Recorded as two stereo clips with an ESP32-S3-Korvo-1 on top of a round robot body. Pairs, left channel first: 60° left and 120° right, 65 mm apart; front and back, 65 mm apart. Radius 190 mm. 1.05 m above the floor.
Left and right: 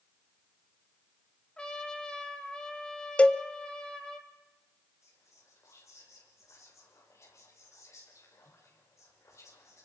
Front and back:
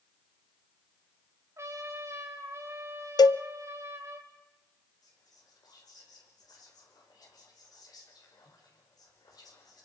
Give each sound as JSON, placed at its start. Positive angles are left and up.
{"t": 1.6, "sound": "a trumpet", "azimuth_deg": 135, "distance_m": 3.5}
{"t": 3.2, "sound": "a cowbell", "azimuth_deg": -15, "distance_m": 0.6}
{"t": 5.0, "sound": "whispering", "azimuth_deg": 15, "distance_m": 5.5}